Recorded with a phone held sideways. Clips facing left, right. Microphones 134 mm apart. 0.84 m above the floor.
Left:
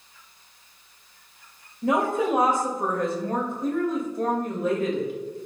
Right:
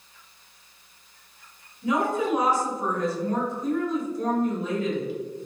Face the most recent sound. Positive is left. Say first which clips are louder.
# left 2 dB
turn(degrees=50)  # may be behind; listen again after turning